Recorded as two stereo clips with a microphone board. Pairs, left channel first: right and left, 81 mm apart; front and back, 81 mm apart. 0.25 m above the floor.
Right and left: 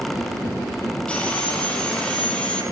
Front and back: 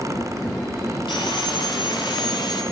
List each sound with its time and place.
1.1 s sawing: 15° right, 7 m